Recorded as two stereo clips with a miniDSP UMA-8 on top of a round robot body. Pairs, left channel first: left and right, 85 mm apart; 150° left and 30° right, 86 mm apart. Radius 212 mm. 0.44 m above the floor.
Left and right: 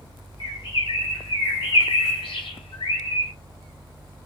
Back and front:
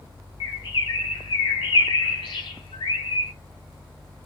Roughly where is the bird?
Behind left.